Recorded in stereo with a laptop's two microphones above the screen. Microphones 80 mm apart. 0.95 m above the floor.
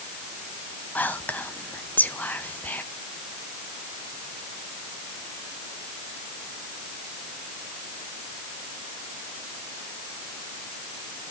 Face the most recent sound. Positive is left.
turn(degrees=20)  # may be behind; listen again after turning